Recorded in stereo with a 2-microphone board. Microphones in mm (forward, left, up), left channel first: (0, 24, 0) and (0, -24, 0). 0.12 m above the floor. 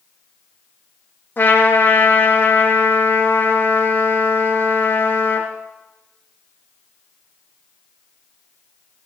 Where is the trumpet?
45° left (ahead or behind), 4.5 m.